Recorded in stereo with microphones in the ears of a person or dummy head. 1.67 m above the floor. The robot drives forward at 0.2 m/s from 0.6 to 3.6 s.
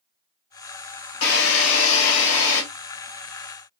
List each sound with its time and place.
1.2 s a drill: 80° left, 1.5 m